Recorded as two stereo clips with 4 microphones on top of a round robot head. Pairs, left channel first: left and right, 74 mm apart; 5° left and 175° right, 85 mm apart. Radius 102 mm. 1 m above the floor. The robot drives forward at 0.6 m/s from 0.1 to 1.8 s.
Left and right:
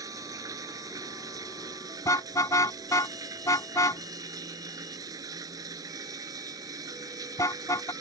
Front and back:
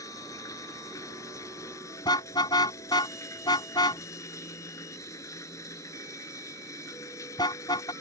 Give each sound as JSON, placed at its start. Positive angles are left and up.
{"t": 0.0, "sound": "running water", "azimuth_deg": -50}
{"t": 2.0, "sound": "a car horn", "azimuth_deg": 45}